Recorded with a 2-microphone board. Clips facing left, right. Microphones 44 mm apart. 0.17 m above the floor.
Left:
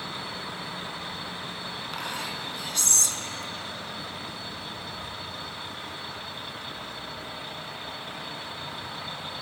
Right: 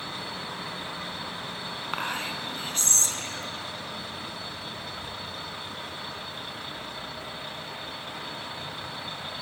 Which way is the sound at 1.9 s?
35° right (ahead or behind).